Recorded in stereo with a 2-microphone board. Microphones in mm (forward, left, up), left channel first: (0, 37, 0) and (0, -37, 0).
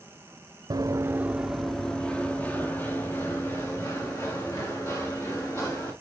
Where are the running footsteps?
55° right (ahead or behind), 0.7 m; by 5.9 s 40° left (ahead or behind), 4 m.